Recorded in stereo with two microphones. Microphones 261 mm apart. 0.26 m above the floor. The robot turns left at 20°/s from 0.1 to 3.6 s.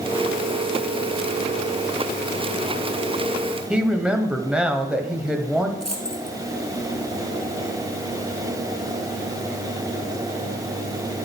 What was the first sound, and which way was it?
A woman speaking, 5° right (ahead or behind).